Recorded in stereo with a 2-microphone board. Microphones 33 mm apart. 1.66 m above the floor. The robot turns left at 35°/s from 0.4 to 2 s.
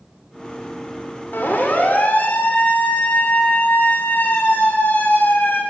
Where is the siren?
80° left, 7.5 m; by 5.6 s 85° left, 9 m.